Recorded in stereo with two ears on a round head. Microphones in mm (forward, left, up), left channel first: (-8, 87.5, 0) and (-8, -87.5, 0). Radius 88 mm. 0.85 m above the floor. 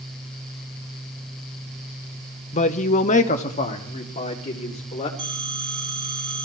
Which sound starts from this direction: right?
A phone ringing, at 5.2 s.